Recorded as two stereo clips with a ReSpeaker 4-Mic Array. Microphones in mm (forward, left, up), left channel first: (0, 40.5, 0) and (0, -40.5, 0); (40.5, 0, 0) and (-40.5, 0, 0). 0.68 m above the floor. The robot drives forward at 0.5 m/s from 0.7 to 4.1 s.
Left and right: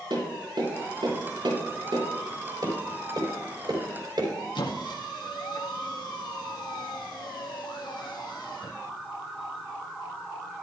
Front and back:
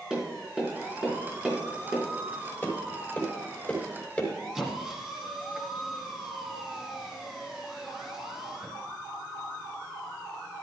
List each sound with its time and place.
0.1 s tapping: 100° right, 5 m; by 2.0 s 110° right, 5 m
2.6 s tapping: 65° right, 3.5 m; by 4.3 s 75° right, 3.5 m
4.5 s a squeak: 100° left, 1.6 m